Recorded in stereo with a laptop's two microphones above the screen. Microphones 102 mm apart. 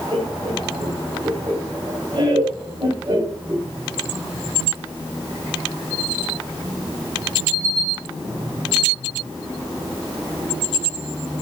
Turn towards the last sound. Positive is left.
turn(degrees=-40)  # may be behind; listen again after turning